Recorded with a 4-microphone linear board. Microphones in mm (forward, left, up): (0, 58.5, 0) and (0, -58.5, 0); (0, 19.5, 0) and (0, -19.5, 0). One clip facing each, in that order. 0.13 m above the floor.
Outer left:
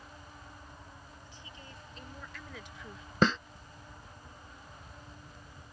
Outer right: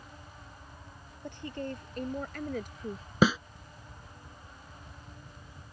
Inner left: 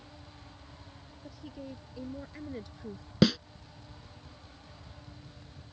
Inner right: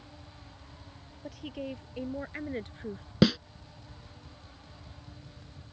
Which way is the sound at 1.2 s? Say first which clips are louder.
Outer right 20 dB, inner right 6 dB; 65° right (ahead or behind).